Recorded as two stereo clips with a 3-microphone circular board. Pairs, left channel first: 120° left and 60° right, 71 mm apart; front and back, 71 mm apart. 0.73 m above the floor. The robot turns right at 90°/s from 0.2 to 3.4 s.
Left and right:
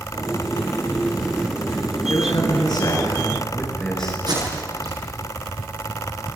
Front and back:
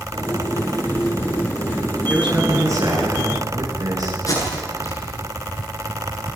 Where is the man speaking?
85° left, 9 m; by 4.2 s 160° right, 9 m.